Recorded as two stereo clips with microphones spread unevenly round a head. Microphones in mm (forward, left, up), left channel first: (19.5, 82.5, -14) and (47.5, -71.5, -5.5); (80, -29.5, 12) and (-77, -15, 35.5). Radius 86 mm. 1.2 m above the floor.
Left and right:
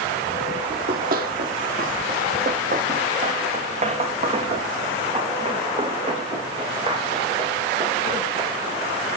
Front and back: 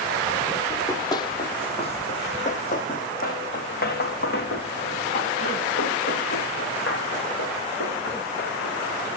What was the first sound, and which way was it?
Running footsteps, 80° right.